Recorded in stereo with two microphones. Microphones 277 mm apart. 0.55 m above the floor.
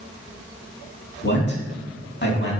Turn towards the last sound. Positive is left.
turn(degrees=40)  # may be behind; listen again after turning